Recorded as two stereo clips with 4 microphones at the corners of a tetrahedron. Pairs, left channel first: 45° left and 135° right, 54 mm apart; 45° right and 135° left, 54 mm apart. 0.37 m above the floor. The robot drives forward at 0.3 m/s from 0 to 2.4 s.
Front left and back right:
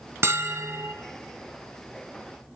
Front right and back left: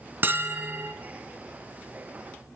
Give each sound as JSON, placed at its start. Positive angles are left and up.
{"t": 0.2, "sound": "a bell", "azimuth_deg": -175, "distance_m": 1.2}